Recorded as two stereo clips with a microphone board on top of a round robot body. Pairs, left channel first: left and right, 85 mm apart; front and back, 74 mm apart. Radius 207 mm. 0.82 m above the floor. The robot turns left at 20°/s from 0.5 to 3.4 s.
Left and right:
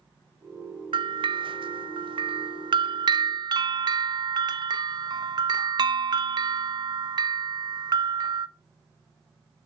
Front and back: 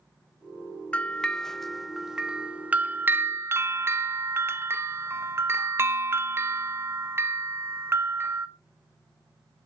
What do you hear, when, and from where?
0.9 s a bell: 75° right, 1.0 m; by 8.5 s 125° right, 1.0 m